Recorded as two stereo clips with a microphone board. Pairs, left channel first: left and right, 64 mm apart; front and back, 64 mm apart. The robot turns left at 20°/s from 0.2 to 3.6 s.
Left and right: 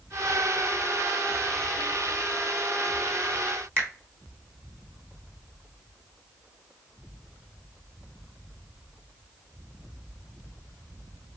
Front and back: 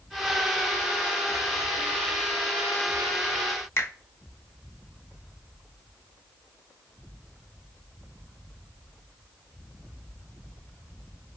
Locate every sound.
3.8 s a finger snap: 40° right, 1.2 m